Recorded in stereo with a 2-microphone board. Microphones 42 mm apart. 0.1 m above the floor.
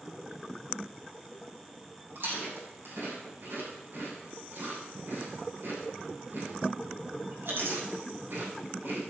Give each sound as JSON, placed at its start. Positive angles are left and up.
{"t": 2.1, "sound": "chewing", "side_deg": -55, "distance_m": 6.5}